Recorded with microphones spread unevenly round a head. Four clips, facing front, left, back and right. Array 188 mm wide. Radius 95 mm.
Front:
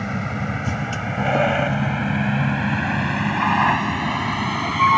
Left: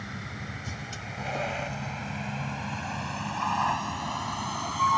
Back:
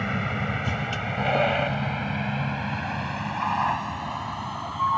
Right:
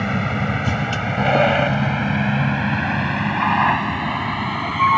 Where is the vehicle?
80° right; by 5.0 s 35° right.